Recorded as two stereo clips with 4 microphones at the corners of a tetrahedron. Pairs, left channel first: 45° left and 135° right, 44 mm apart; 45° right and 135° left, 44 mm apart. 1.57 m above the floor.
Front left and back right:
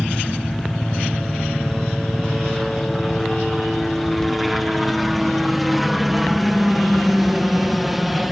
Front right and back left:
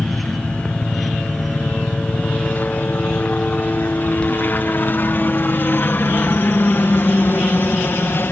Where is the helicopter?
40° right; by 8.3 s 50° right.